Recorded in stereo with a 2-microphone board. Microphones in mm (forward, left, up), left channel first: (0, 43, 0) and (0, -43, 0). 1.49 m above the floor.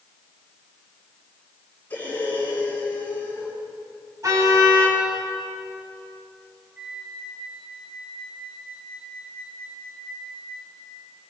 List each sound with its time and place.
1.9 s breathing: 20° left (ahead or behind), 8 m
4.2 s a car horn: 40° right (ahead or behind), 6.5 m
6.8 s a flute: 20° right (ahead or behind), 4 m